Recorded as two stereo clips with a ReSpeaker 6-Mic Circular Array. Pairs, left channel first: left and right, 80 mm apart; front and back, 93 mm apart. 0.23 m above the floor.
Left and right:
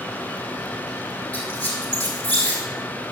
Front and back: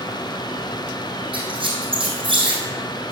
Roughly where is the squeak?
Behind.